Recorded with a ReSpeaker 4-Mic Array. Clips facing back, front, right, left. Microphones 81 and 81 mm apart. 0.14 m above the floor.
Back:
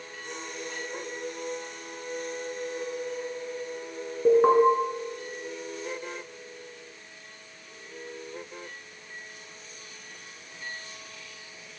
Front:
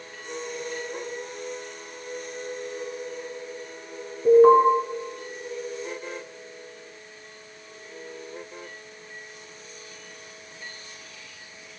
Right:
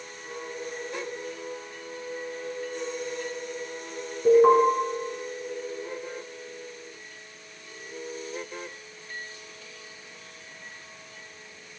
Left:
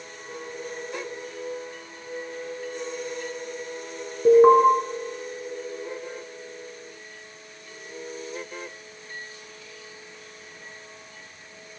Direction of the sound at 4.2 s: 135° left.